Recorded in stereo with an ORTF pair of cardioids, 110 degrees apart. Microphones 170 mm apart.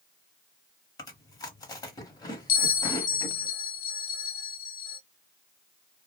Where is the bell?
60° left, 0.7 m.